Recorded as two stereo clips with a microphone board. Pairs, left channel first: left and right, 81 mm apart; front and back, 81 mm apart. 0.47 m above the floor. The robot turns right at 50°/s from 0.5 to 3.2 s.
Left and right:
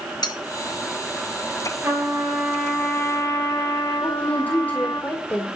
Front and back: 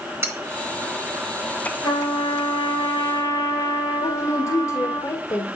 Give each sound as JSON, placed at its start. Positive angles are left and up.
{"t": 0.2, "sound": "cutlery clinking", "azimuth_deg": 125, "distance_m": 2.5}
{"t": 1.8, "sound": "a trumpet", "azimuth_deg": -35, "distance_m": 6.0}
{"t": 4.0, "sound": "a woman speaking", "azimuth_deg": 30, "distance_m": 1.7}